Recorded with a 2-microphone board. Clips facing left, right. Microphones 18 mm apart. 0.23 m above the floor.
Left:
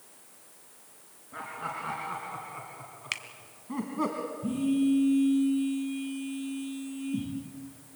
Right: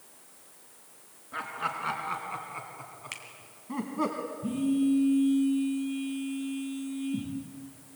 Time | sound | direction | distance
1.3 | laughter | 50° right (ahead or behind) | 3 m
3.1 | a finger snap | 40° left (ahead or behind) | 1.4 m
4.4 | a phone buzzing | 5° left (ahead or behind) | 9.5 m